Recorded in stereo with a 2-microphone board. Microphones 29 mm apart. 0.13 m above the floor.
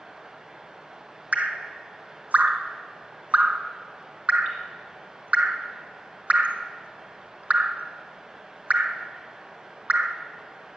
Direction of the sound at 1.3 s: 60° right (ahead or behind).